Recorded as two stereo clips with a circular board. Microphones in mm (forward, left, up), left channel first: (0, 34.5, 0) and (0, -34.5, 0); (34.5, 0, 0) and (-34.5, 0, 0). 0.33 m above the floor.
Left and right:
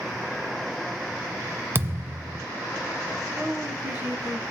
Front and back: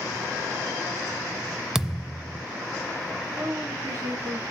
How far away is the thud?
About 0.5 m.